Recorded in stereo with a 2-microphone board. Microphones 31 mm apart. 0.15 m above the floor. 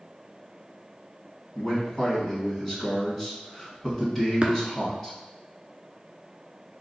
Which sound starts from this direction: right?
Tapping, at 4.4 s.